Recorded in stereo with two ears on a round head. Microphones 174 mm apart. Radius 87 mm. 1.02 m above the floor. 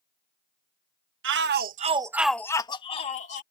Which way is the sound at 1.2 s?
70° right (ahead or behind).